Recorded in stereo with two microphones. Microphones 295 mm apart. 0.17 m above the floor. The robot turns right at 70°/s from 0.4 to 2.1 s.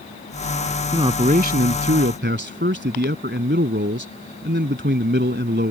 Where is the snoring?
I don't hear snoring.